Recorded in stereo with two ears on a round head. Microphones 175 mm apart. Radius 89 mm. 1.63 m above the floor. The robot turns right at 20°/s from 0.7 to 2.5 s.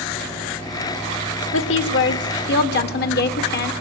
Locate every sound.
1.5 s a woman speaking: 75° left (ahead or behind), 1.5 m; by 3.7 s 55° left (ahead or behind), 1.5 m